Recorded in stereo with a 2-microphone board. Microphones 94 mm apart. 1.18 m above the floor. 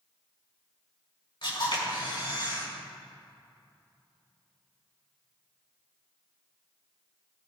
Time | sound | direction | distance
1.4 | a camera shutter | 60° left (ahead or behind) | 5.5 m